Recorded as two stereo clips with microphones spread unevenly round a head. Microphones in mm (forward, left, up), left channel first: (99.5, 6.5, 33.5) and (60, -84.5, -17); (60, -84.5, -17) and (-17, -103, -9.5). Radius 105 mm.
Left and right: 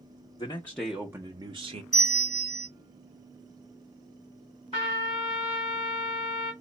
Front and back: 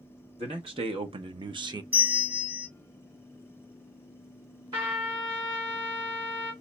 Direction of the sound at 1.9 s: 135° left.